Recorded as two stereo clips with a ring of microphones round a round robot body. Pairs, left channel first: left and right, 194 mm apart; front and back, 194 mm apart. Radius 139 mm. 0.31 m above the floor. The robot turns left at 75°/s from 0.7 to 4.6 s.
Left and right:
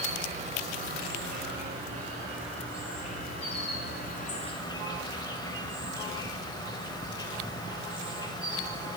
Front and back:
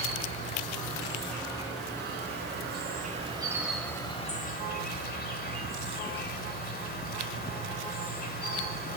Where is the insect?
40° right, 0.9 m; by 9.0 s 25° left, 0.9 m.